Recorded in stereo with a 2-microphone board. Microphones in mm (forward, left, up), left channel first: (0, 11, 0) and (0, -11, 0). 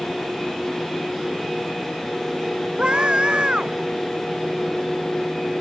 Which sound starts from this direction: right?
A scream, at 2.8 s.